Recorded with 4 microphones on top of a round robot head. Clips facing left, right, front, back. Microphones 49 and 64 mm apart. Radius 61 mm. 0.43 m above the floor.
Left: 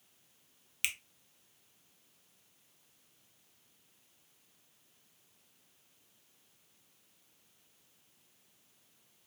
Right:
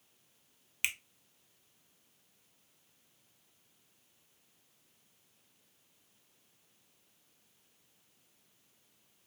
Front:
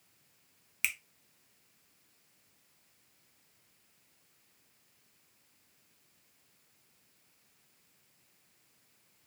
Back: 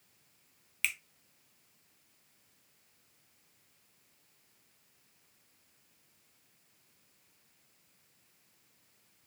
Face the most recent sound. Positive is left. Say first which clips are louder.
# right 2 dB, even
turn(degrees=-55)